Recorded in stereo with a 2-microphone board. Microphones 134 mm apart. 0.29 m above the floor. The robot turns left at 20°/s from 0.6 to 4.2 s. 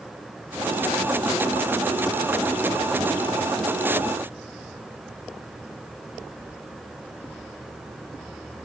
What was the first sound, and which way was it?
Only background noise.